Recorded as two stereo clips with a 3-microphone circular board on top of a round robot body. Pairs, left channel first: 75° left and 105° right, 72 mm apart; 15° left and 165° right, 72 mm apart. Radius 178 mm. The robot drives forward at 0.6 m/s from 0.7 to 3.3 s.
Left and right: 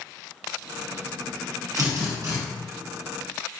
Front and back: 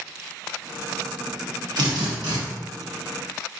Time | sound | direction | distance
1.8 | a drill | 145° right | 1.3 m